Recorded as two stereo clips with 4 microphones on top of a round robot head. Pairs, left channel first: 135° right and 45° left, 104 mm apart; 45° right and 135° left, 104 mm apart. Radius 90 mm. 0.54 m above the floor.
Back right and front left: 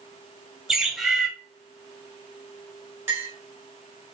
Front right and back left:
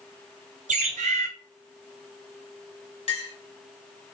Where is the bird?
130° left, 0.7 m.